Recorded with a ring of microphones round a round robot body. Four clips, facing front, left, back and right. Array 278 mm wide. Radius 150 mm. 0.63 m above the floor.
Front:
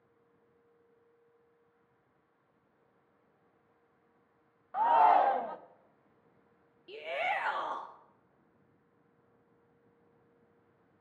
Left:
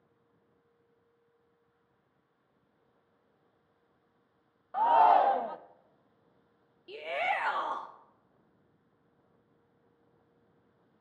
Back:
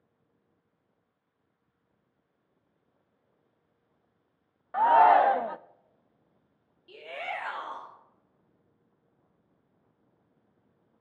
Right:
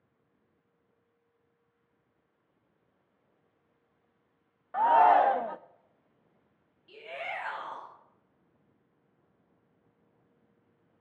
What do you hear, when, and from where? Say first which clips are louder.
4.7 s a shout: right 1 dB, back 5 dB; 155° right, 0.6 m
6.9 s a shout: left 7 dB, front 3 dB; 65° left, 1.2 m